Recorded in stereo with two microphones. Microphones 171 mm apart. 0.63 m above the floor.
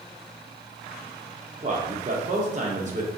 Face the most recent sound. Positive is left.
turn(degrees=-45)  # may be behind; listen again after turning